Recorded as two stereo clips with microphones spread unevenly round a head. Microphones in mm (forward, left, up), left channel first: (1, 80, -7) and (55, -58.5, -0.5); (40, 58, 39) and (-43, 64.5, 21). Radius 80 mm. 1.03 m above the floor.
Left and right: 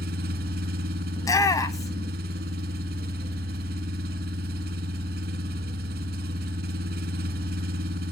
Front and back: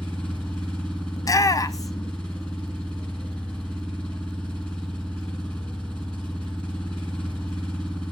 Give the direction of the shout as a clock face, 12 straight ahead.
10 o'clock.